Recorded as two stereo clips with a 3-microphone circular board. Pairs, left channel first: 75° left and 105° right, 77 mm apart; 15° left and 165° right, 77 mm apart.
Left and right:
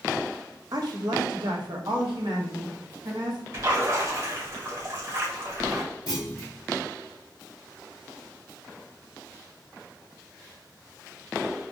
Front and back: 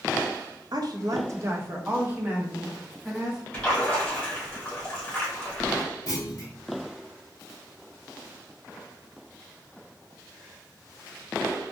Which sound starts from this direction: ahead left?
A clunk, at 6.1 s.